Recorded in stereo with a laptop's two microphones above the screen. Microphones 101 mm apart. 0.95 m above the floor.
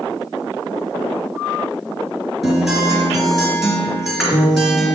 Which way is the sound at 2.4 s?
Centre (ahead or behind).